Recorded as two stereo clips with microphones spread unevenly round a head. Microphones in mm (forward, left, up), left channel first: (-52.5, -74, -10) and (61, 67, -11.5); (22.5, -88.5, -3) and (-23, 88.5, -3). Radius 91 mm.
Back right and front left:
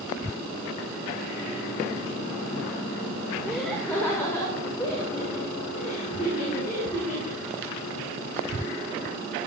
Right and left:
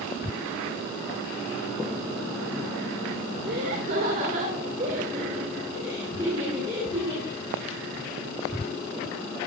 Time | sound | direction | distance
3.4 | laughter | 140° left | 2 m